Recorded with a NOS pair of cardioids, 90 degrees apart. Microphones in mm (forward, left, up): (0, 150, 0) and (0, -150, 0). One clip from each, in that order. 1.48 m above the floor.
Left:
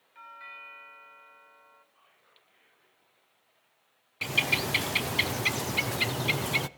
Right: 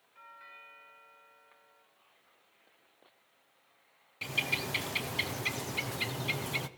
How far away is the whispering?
About 8 m.